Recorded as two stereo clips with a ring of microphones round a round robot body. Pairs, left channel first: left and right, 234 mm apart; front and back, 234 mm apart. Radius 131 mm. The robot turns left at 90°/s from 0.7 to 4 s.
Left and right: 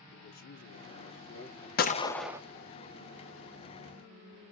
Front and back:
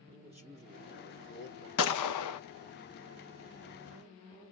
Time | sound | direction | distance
0.1 | a man speaking | 115° left | 1.7 m
1.8 | a gunshot | 40° left | 0.6 m